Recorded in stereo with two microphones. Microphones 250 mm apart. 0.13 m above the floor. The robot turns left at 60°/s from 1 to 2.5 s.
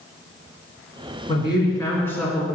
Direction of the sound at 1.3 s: 20° left (ahead or behind).